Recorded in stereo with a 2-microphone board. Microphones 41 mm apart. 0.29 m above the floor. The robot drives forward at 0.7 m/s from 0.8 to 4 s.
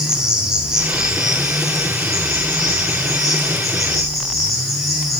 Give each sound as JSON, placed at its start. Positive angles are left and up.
{"t": 0.0, "sound": "an insect", "side_deg": -15, "distance_m": 0.9}